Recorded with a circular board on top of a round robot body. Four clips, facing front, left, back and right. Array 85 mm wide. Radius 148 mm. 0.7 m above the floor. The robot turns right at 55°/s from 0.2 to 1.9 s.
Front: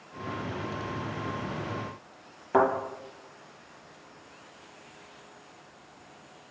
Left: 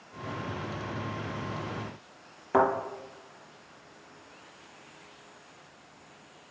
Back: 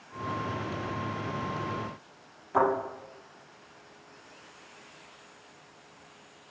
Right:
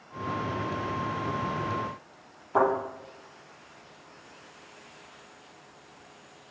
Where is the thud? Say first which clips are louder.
Even, front 2 dB; 55° left, 3.5 m.